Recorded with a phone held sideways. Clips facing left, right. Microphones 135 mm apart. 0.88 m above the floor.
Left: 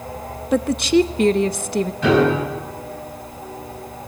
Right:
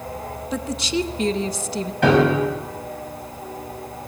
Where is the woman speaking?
60° left (ahead or behind), 0.7 m.